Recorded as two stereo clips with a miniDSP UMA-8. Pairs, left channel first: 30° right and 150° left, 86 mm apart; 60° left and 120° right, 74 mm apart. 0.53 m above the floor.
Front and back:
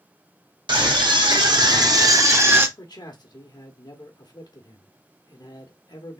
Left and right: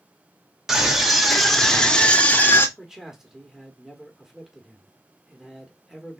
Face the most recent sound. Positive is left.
turn(degrees=-35)